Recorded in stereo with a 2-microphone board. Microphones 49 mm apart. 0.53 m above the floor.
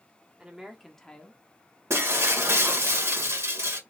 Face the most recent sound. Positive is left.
turn(degrees=-70)  # may be behind; listen again after turning